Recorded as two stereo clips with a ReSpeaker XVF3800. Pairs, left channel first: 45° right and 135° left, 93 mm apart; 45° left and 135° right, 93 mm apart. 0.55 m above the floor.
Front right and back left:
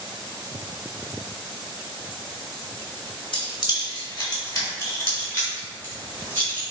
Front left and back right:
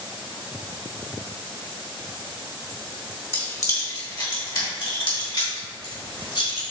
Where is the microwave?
No microwave in this recording.